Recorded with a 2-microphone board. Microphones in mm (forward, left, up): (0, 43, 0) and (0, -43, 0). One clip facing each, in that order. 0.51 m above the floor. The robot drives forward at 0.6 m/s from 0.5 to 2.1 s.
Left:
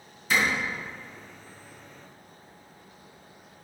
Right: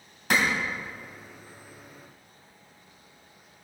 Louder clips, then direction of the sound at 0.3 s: Right 1 dB; 75° right (ahead or behind).